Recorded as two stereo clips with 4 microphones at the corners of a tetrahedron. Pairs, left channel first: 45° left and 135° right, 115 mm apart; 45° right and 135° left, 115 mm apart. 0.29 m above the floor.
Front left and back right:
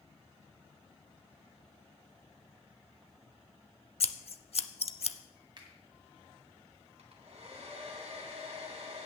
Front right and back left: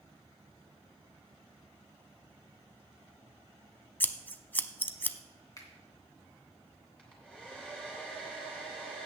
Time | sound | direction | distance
4.0 | scissors | 25° left | 0.6 m
5.6 | a finger snap | 95° right | 2.5 m
7.0 | a hair dryer | 125° right | 3 m